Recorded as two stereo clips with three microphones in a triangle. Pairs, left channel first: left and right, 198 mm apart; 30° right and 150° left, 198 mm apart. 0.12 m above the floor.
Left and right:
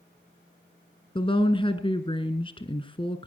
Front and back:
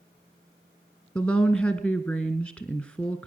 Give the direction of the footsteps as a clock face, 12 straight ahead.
No footsteps in this recording.